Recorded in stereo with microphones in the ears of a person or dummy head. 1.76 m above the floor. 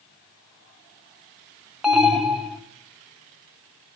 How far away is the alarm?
About 0.9 m.